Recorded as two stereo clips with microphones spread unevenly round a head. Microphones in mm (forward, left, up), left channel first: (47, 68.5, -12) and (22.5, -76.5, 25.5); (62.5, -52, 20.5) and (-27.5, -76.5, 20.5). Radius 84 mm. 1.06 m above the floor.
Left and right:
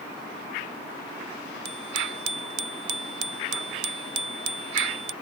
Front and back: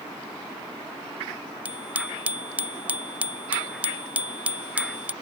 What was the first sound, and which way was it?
A bicycle bell, 90° right.